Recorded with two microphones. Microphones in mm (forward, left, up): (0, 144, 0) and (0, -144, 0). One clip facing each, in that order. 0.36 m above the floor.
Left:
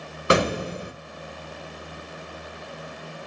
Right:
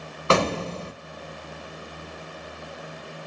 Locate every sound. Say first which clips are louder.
0.3 s an explosion: left 1 dB; 15° left (ahead or behind), 0.5 m